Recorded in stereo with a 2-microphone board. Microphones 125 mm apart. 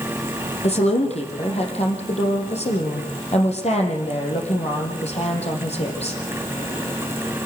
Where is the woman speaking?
50° left (ahead or behind), 5 m.